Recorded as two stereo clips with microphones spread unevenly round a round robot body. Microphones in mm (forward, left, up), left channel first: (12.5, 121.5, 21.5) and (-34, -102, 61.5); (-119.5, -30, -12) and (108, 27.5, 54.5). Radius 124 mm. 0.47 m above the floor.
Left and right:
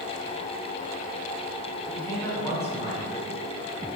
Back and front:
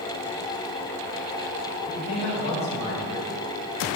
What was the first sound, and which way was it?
A man speaking, 150° left.